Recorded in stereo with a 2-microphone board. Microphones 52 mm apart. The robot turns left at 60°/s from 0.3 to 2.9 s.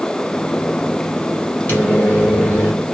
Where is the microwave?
120° left, 1.5 m; by 2.7 s 55° left, 1.5 m.